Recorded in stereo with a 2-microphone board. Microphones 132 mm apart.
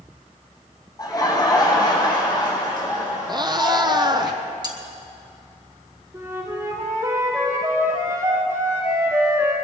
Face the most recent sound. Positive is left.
turn(degrees=-25)  # may be behind; listen again after turning